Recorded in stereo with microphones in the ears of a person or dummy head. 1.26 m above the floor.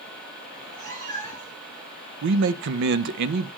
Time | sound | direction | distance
0.5 | a cat meowing | 65° right (ahead or behind) | 6 m
2.2 | a man speaking | 70° right (ahead or behind) | 0.8 m